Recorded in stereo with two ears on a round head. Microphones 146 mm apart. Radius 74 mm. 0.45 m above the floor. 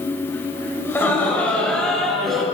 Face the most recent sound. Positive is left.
turn(degrees=0)  # may be behind; listen again after turning